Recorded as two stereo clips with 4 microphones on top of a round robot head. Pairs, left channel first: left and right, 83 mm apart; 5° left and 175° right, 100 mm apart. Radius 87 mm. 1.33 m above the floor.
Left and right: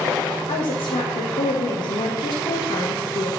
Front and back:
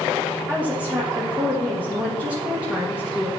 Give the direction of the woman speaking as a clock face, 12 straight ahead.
8 o'clock.